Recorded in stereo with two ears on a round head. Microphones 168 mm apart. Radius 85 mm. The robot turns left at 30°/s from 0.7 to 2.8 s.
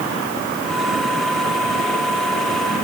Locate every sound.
Only background noise.